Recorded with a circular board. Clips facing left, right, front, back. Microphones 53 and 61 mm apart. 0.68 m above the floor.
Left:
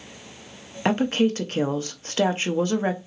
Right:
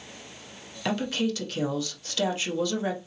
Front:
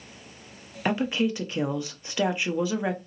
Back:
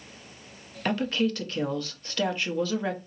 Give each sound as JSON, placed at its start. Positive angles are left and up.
{"t": 0.8, "sound": "a woman speaking", "azimuth_deg": 65, "distance_m": 0.7}